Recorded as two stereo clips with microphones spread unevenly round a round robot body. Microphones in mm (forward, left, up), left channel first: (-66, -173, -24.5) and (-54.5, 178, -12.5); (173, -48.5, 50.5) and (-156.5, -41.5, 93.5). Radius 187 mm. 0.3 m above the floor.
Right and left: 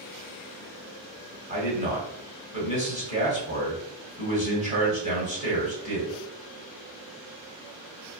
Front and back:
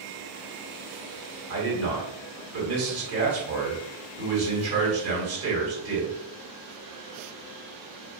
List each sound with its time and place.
1.5 s a man speaking: 150° left, 1.4 m